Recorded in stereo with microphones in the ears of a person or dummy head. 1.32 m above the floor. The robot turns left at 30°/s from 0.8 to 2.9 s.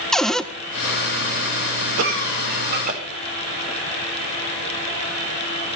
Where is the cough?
75° right (ahead or behind), 4.5 m; by 3.0 s 50° right (ahead or behind), 4.5 m.